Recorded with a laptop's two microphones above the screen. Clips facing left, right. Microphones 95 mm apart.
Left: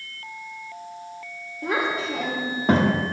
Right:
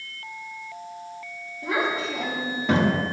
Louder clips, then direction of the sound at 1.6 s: Left 1 dB; 60° left (ahead or behind).